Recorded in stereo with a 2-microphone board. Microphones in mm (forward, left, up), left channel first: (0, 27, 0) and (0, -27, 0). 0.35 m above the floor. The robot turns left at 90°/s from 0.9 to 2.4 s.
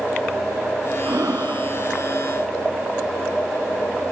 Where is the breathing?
85° right, 0.5 m; by 1.8 s 150° right, 0.5 m.